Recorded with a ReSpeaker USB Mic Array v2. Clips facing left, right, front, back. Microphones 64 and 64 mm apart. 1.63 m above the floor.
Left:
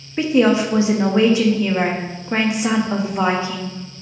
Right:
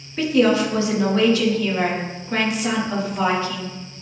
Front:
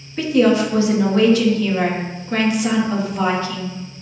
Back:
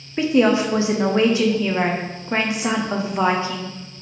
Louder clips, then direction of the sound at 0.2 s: Left 2 dB, front 1 dB; 135° left.